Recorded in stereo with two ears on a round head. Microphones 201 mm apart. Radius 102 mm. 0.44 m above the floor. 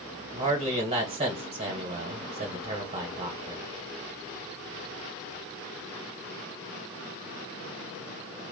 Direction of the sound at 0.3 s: 25° right (ahead or behind).